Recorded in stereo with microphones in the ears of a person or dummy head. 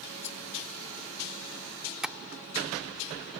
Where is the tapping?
10° right (ahead or behind).